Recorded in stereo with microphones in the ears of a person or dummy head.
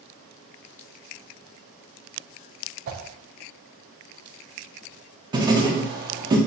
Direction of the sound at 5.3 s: 20° right (ahead or behind).